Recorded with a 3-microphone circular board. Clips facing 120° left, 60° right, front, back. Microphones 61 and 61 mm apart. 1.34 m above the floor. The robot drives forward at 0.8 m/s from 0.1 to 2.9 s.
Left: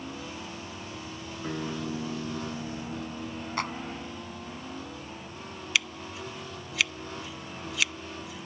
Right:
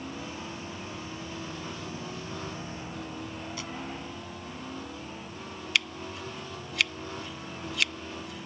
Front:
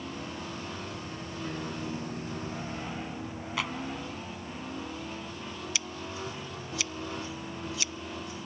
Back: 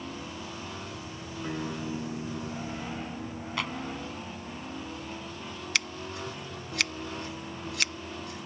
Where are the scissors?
155° right.